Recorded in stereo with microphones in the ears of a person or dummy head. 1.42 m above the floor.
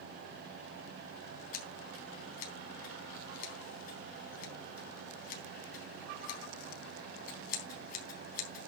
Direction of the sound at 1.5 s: 55° left (ahead or behind).